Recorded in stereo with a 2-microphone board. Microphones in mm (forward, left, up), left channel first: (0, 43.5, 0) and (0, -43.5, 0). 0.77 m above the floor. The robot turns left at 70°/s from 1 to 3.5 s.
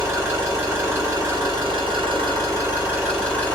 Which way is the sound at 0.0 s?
30° right.